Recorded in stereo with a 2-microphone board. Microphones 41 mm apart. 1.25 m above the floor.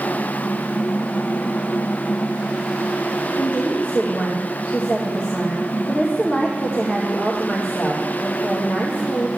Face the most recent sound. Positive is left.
turn(degrees=55)  # may be behind; listen again after turning